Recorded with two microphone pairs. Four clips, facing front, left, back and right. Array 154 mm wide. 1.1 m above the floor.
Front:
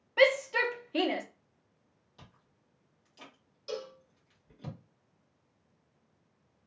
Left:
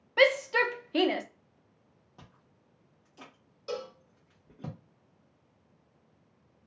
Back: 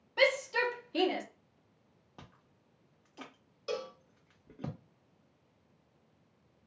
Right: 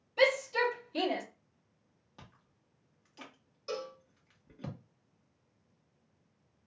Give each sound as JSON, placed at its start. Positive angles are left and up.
{"t": 0.2, "sound": "a shout", "azimuth_deg": 70, "distance_m": 0.7}
{"t": 2.2, "sound": "chewing", "azimuth_deg": 180, "distance_m": 0.8}
{"t": 3.7, "sound": "a cowbell", "azimuth_deg": 165, "distance_m": 1.2}